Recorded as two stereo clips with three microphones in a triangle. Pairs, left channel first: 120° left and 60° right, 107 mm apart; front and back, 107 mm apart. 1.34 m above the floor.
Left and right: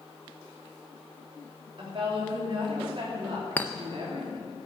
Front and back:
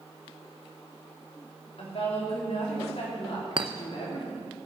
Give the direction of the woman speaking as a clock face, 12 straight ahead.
1 o'clock.